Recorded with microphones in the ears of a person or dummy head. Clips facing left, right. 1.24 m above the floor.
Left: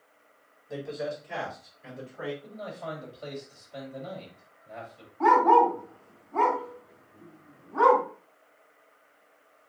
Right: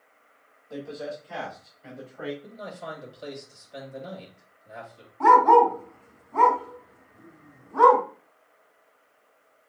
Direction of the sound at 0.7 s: 25° left (ahead or behind).